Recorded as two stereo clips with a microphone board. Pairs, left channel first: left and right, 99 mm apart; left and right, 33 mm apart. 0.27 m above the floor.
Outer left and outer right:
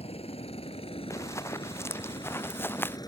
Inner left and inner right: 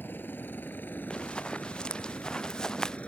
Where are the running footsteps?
30° left (ahead or behind); by 3.0 s 20° left (ahead or behind).